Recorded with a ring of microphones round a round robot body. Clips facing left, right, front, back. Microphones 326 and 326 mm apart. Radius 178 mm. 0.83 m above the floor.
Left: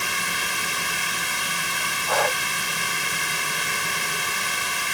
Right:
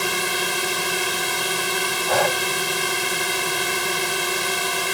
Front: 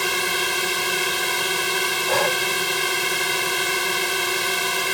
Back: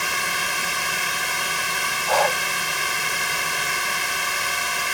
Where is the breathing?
65° right.